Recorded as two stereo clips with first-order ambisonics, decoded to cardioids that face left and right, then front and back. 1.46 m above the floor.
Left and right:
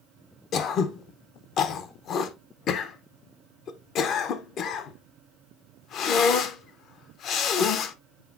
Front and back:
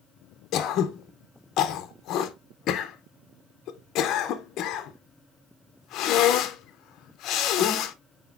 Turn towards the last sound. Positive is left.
turn(degrees=40)